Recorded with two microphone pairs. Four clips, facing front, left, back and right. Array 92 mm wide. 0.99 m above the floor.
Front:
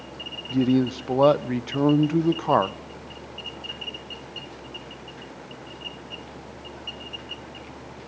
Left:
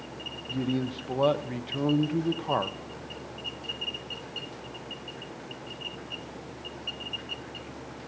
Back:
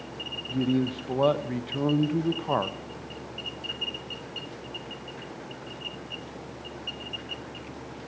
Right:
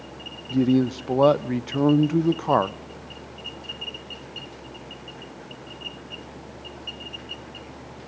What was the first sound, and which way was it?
A man speaking, 55° right.